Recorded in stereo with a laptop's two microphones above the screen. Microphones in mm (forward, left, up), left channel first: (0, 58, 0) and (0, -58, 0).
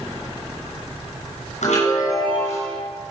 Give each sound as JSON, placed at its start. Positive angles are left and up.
{"t": 1.6, "sound": "a chime", "side_deg": 80, "distance_m": 6.5}